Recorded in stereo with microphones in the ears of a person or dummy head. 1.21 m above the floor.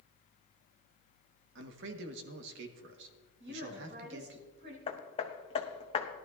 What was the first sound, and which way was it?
A man speaking, 60° right (ahead or behind).